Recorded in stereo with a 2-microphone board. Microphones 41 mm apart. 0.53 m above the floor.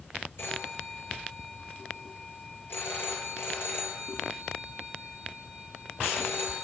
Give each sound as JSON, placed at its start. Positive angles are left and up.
{"t": 0.4, "sound": "a phone ringing", "side_deg": 60, "distance_m": 7.0}